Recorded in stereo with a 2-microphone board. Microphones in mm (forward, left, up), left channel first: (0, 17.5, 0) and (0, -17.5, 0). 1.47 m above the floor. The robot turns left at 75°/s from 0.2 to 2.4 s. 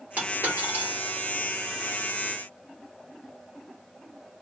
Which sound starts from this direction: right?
A dropped coin, at 0.2 s.